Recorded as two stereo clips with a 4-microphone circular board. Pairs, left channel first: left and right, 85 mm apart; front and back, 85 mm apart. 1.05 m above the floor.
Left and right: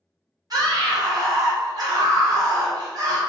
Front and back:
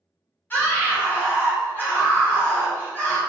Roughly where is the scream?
Ahead right.